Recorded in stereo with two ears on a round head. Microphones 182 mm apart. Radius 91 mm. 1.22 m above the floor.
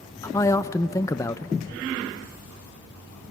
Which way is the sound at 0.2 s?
15° left (ahead or behind).